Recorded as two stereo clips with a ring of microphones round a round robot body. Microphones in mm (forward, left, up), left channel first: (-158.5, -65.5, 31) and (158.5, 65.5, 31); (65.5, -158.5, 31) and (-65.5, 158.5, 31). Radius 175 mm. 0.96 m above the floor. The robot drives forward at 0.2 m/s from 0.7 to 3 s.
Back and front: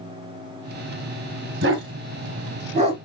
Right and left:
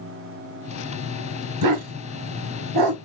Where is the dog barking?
80° left, 1.0 m; by 3.0 s 95° left, 1.0 m.